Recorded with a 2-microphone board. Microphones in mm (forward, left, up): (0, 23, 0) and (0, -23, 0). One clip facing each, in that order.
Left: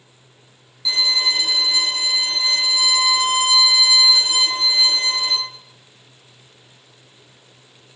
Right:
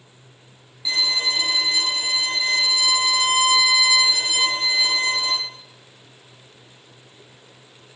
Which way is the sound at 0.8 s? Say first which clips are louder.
Left 2 dB; 25° right (ahead or behind).